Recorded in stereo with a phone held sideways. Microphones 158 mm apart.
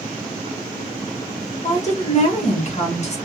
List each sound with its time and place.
1.6 s a woman speaking: 45° left (ahead or behind), 1.1 m